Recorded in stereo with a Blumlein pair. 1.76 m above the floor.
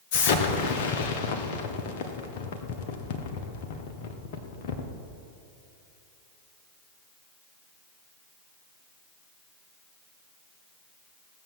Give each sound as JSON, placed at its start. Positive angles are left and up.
{"t": 0.1, "sound": "an explosion", "azimuth_deg": 50, "distance_m": 1.5}